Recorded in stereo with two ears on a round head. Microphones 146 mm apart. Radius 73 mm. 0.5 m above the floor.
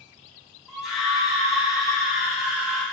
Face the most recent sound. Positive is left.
turn(degrees=0)  # may be behind; listen again after turning